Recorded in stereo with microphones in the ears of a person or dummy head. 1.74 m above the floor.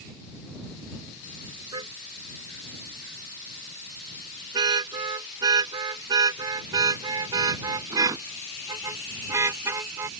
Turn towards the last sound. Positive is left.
turn(degrees=-15)  # may be behind; listen again after turning